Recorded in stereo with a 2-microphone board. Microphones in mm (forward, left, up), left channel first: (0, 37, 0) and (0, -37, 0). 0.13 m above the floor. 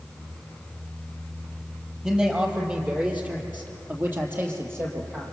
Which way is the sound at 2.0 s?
10° right (ahead or behind).